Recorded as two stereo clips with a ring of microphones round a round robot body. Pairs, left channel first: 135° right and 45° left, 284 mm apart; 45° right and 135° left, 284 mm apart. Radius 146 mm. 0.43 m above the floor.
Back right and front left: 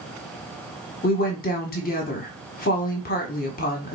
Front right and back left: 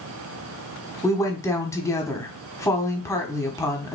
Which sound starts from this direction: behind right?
A woman speaking, at 1.0 s.